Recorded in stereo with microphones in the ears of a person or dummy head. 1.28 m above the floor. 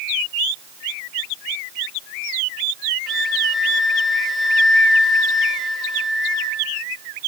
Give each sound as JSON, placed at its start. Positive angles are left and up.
{"t": 3.1, "sound": "a flute", "side_deg": 5, "distance_m": 1.7}